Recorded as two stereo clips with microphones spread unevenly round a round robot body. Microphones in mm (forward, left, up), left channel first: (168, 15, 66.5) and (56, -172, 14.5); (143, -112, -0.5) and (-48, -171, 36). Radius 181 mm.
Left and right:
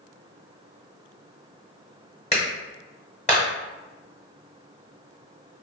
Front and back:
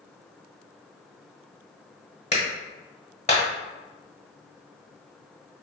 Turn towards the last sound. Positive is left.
turn(degrees=-5)